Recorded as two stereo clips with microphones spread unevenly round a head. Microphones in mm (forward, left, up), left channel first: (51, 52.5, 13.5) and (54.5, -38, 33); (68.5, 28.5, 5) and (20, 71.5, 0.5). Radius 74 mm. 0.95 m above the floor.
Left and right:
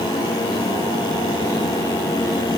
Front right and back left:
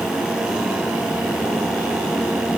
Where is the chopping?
I don't hear chopping.